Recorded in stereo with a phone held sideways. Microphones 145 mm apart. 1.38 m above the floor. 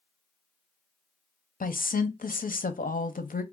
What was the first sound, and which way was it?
A woman speaking, 70° left (ahead or behind).